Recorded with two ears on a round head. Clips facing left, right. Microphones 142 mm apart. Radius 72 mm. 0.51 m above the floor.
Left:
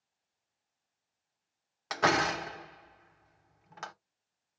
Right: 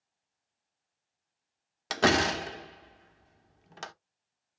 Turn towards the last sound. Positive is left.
turn(degrees=-35)  # may be behind; listen again after turning